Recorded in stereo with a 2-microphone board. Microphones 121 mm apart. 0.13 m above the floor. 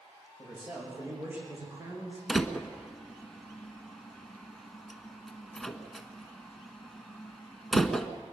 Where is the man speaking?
10° right (ahead or behind), 9 m; by 2.2 s 30° right (ahead or behind), 8.5 m.